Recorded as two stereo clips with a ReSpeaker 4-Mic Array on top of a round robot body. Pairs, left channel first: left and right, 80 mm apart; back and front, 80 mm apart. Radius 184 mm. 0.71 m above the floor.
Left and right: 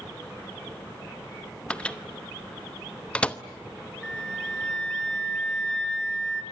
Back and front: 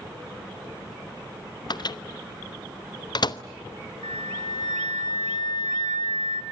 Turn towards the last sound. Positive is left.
turn(degrees=170)